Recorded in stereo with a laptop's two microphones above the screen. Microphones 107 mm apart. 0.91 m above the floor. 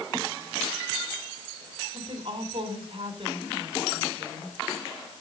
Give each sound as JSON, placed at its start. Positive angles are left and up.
{"t": 1.9, "sound": "a woman speaking", "side_deg": -60, "distance_m": 3.5}